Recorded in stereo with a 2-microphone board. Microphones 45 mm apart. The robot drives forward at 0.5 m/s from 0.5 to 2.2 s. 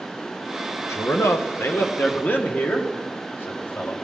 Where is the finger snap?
No finger snap in this recording.